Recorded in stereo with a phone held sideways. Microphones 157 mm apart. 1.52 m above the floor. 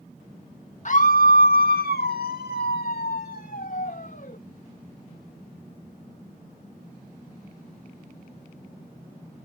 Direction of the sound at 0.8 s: 50° left (ahead or behind).